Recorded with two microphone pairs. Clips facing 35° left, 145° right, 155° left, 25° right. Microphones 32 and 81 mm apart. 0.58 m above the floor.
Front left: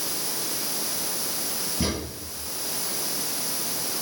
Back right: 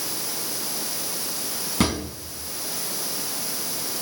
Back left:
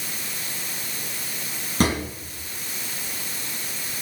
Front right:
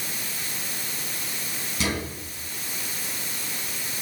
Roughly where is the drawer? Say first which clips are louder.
Back right 5 dB, back left 6 dB; behind.